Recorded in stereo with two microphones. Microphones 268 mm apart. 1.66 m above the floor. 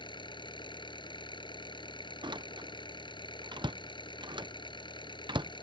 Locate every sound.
0.0 s an engine running: 15° left (ahead or behind)
2.2 s a door slam: 15° right (ahead or behind)